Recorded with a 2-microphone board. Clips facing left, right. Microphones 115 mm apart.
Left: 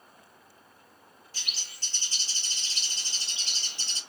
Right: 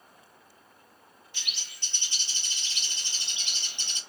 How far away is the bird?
About 0.7 m.